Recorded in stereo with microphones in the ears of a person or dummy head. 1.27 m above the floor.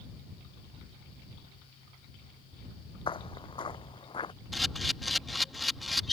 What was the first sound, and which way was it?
Footsteps, 20° left (ahead or behind).